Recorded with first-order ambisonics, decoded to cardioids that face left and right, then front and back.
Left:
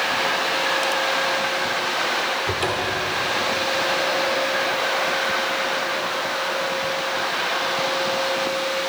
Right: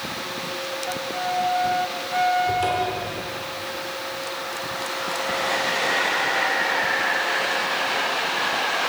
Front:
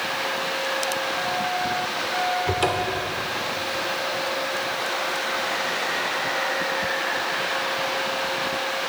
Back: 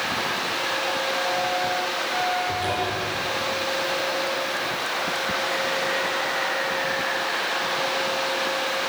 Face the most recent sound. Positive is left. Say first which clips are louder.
# even, front 2 dB
turn(degrees=20)